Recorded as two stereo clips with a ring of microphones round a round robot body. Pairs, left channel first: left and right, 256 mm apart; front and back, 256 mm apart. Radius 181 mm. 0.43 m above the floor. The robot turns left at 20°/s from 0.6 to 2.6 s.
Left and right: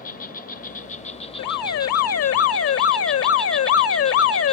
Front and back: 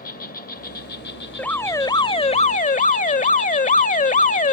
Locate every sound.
0.0 s an insect: 45° left; by 4.5 s 5° left
1.4 s an alarm: 85° left; by 4.5 s 60° left